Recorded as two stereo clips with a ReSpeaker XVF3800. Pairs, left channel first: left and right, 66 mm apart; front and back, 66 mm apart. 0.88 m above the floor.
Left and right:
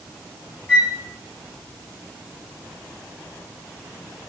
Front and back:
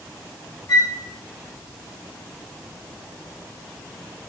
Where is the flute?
30° left, 2 m.